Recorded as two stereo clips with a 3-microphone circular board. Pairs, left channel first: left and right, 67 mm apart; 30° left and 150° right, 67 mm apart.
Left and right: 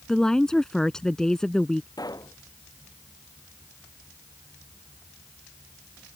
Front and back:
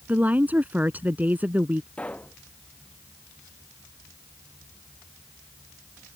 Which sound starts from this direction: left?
A pop, at 2.0 s.